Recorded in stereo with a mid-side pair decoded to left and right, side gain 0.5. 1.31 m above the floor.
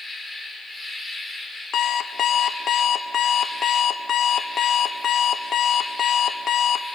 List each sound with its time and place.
0.0 s an insect: 10° left, 4 m
1.7 s an alarm clock: 55° left, 1.1 m